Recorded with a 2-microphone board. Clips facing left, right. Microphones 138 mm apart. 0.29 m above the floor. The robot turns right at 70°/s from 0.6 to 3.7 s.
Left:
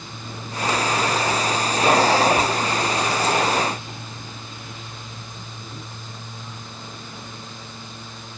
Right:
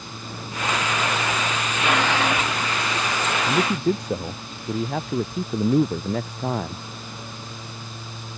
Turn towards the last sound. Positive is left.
turn(degrees=-80)